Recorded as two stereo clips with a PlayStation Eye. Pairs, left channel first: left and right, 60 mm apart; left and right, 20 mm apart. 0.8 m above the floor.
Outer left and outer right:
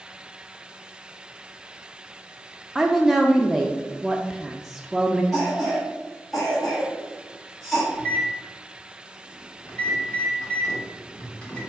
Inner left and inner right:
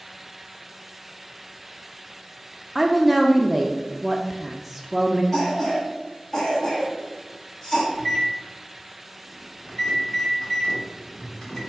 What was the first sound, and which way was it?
A woman speaking, 5° right (ahead or behind).